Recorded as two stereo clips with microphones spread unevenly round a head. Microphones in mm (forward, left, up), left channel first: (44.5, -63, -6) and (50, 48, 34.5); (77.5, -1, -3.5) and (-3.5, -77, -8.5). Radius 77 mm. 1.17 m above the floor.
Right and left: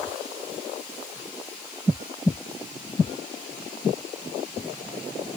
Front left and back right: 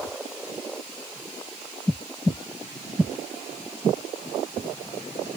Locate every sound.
Only background noise.